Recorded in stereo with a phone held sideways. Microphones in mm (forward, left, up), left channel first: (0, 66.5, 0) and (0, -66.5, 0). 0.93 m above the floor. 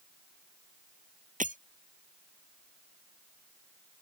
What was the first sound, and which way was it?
Breaking glass, 85° right.